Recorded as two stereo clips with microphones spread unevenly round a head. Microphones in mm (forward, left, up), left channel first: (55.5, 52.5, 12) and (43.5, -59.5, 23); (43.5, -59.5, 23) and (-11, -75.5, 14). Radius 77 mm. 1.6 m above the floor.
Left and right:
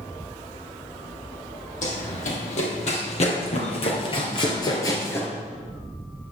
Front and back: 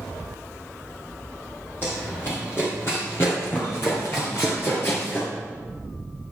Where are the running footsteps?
80° left, 4 m; by 5.3 s 10° left, 2.0 m.